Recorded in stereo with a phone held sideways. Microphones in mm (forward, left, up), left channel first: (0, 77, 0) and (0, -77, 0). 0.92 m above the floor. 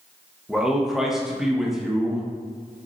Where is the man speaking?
Centre (ahead or behind), 0.8 m.